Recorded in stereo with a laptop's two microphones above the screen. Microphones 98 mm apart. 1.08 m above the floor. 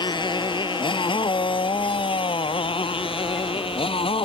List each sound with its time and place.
0.0 s a motorcycle: 55° left (ahead or behind); by 4.2 s 80° left